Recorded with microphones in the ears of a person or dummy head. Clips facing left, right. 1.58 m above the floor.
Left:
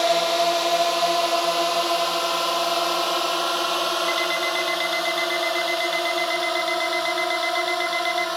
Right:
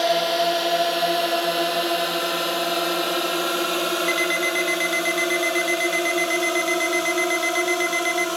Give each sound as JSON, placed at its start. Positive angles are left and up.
{"t": 0.0, "sound": "a drone", "side_deg": -5}
{"t": 4.1, "sound": "an alarm clock", "side_deg": -35}